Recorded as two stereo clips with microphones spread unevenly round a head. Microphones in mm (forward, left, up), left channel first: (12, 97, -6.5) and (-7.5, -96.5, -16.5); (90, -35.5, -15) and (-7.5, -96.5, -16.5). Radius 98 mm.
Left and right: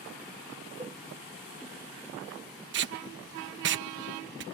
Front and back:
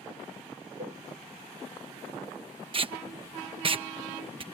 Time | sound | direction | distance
0.8 | a cowbell | 165° right | ?
2.7 | tape being pulled | 115° right | ?